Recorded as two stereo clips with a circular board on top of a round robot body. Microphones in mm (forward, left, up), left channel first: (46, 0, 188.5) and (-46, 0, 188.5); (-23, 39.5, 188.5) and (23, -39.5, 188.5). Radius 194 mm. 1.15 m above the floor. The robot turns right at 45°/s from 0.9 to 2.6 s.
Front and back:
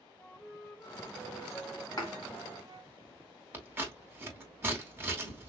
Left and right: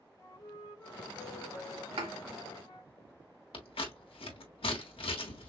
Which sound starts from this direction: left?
A flute, at 0.2 s.